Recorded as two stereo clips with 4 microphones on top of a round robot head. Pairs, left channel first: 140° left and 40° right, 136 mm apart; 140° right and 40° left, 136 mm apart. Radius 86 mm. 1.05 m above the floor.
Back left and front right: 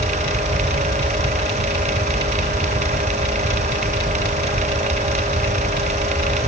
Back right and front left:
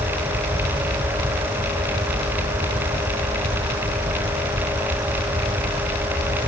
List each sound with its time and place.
Only background noise.